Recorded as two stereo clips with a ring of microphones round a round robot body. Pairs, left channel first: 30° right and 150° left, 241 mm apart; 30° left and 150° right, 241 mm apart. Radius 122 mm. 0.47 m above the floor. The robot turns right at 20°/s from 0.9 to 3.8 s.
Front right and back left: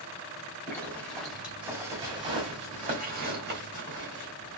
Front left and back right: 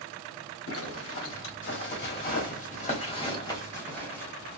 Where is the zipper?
55° left, 1.2 m; by 4.6 s 110° left, 1.2 m.